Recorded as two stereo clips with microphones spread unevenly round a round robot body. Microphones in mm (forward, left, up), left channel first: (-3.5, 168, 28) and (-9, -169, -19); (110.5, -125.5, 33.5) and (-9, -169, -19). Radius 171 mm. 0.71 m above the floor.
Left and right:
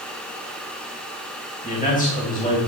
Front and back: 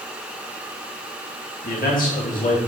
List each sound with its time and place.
1.6 s a man speaking: 20° left, 3 m